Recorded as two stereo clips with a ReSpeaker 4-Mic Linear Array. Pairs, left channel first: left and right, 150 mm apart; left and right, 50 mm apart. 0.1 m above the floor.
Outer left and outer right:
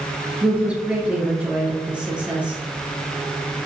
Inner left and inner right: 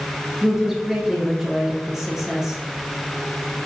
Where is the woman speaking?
10° right (ahead or behind), 1.3 m.